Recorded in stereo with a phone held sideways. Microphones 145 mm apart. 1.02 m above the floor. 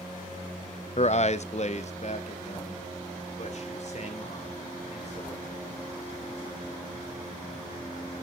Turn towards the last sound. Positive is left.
turn(degrees=50)  # may be behind; listen again after turning